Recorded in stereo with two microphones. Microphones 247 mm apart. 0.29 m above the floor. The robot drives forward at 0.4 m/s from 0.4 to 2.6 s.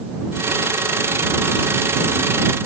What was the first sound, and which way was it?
Only background noise.